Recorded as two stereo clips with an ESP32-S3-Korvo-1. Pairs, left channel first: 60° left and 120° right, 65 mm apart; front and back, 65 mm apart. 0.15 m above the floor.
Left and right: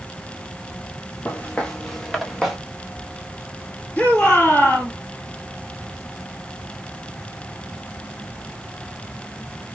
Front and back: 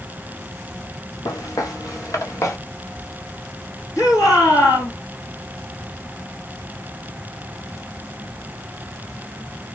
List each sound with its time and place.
1.2 s footsteps: 5° right, 1.5 m; by 2.6 s 40° right, 1.4 m
4.0 s a shout: 5° right, 2.5 m